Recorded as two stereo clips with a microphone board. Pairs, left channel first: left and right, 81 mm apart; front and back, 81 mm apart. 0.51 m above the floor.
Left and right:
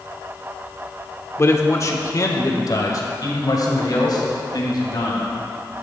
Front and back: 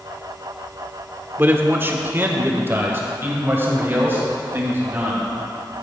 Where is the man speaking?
130° left, 1.0 m; by 5.3 s 120° left, 3.5 m.